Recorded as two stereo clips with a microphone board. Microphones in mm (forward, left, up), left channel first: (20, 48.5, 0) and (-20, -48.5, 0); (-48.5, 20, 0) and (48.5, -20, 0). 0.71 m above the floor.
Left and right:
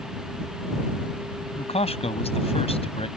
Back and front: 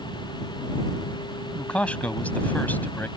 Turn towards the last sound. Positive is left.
turn(degrees=85)